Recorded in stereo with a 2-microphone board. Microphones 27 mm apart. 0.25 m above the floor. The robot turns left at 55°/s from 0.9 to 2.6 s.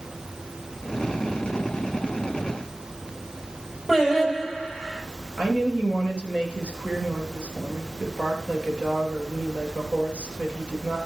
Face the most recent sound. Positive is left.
turn(degrees=-45)  # may be behind; listen again after turning